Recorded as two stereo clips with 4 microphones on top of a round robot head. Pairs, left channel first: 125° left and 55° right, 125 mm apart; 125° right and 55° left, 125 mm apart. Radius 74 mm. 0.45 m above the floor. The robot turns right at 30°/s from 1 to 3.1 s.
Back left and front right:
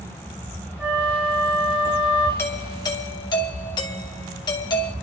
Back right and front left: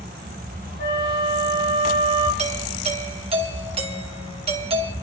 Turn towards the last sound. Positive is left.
turn(degrees=80)